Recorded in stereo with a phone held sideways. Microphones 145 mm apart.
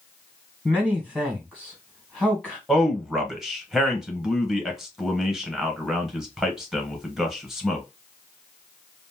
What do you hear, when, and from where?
0.7 s a man speaking: 5° right (ahead or behind), 1.3 m
2.7 s a man speaking: centre (ahead or behind), 1.2 m